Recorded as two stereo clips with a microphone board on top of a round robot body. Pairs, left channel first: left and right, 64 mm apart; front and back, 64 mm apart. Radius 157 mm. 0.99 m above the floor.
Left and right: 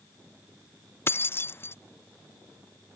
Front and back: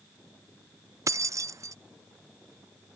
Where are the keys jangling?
145° left.